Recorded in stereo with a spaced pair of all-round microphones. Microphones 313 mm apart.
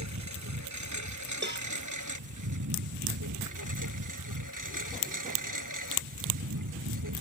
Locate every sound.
0.0 s a lawn mower: 60° right (ahead or behind); by 7.2 s 80° right
1.4 s a cowbell: 35° right (ahead or behind)